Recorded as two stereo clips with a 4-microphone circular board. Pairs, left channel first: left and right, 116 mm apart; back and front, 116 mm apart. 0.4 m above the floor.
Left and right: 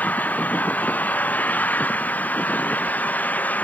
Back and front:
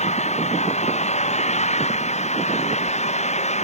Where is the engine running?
165° left.